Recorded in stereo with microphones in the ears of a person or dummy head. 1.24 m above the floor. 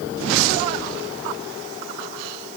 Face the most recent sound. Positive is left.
No sound to turn to.